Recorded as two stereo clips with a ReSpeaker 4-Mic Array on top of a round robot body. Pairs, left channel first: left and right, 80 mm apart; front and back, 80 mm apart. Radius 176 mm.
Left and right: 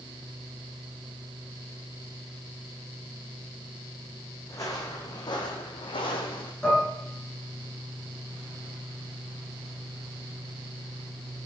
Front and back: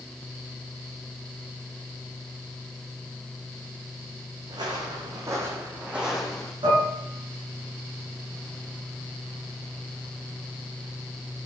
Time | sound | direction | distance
4.5 | footsteps | 145° left | 2.5 m
6.6 | dishes clattering | 170° left | 7 m